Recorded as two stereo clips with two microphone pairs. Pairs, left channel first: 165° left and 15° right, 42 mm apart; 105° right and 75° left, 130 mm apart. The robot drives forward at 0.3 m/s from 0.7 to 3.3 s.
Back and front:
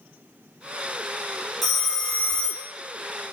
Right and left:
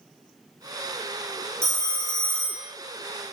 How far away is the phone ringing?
About 0.7 m.